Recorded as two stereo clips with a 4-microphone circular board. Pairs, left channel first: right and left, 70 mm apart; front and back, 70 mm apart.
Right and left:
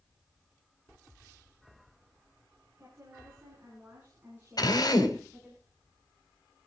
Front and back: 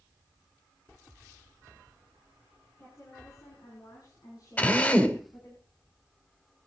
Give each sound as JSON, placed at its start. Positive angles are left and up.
{"t": 2.8, "sound": "a woman speaking", "azimuth_deg": 35, "distance_m": 6.5}
{"t": 4.6, "sound": "a drill", "azimuth_deg": -70, "distance_m": 2.0}